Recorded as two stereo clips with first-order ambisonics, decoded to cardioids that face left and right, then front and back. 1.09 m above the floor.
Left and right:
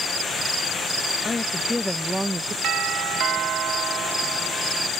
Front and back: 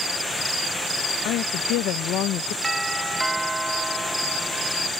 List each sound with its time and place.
1.2 s a woman speaking: 15° left; by 2.5 s 20° right
2.6 s a doorbell: 105° right